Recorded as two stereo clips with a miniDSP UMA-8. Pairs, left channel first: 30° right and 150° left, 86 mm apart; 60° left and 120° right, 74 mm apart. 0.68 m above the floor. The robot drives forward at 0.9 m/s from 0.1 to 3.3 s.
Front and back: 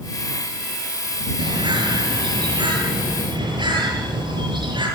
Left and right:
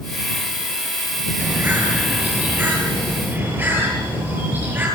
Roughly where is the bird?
Behind.